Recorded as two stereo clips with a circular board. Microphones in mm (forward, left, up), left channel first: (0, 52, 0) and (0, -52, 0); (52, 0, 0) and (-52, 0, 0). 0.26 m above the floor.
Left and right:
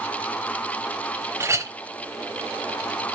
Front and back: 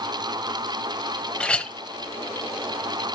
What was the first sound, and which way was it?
A clink, 70° right.